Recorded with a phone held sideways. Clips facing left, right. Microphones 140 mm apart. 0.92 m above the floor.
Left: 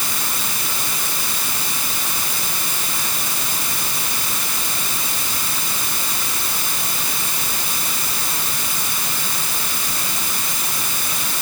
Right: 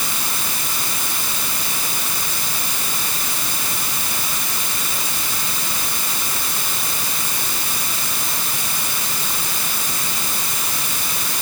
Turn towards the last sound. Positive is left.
No sound to turn to.